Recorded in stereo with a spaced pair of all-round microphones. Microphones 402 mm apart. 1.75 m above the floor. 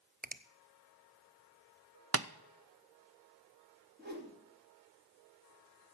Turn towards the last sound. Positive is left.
turn(degrees=-25)  # may be behind; listen again after turning